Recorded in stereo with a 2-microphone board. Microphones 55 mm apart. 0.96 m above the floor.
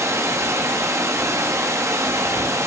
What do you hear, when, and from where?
0.0 s running water: 55° right (ahead or behind), 1.5 m